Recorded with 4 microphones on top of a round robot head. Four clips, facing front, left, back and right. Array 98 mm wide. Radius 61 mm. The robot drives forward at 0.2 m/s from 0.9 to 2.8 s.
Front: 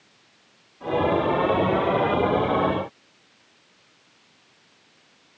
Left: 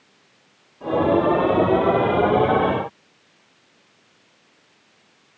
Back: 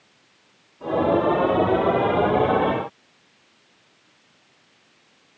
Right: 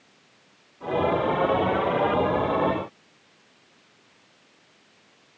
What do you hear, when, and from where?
Only background noise.